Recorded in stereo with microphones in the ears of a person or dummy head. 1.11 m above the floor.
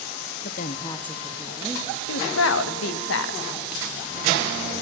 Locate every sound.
0.4 s a woman speaking: 45° left (ahead or behind), 0.7 m; by 2.0 s 5° right (ahead or behind), 2 m
2.1 s a woman speaking: 75° left (ahead or behind), 0.9 m